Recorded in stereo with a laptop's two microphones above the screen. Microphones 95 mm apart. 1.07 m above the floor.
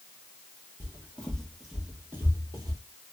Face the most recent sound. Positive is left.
turn(degrees=-40)  # may be behind; listen again after turning